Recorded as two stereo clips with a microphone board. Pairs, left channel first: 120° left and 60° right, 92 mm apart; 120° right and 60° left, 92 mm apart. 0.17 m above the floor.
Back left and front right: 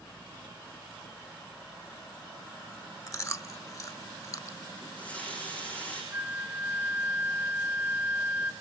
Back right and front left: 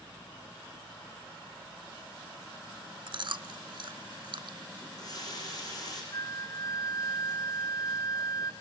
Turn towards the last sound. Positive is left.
turn(degrees=-115)